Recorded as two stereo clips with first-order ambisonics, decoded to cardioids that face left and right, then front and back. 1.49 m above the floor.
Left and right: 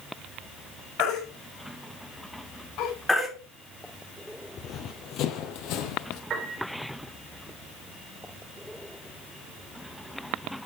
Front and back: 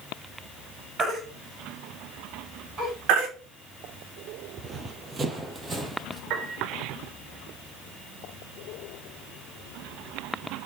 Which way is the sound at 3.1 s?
170° left.